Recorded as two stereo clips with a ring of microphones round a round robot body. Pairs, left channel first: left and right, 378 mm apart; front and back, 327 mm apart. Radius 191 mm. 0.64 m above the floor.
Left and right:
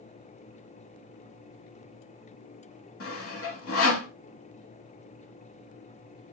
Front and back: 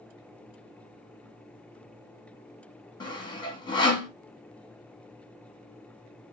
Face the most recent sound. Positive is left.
turn(degrees=70)